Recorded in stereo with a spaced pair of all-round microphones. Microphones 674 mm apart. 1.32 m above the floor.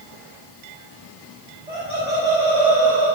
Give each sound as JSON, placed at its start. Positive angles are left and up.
{"t": 1.7, "sound": "laughter", "side_deg": -90, "distance_m": 5.0}